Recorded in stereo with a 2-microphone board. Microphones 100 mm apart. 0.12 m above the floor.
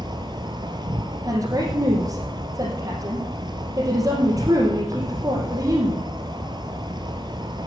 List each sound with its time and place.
0.0 s an insect: 50° right (ahead or behind), 1.1 m
1.2 s a woman speaking: 35° right (ahead or behind), 2.5 m